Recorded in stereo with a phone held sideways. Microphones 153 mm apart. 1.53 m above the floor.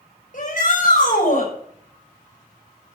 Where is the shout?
55° left (ahead or behind), 7.5 m.